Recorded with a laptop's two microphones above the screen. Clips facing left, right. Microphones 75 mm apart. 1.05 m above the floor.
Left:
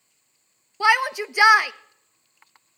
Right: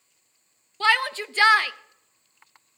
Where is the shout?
15° left (ahead or behind), 0.6 m.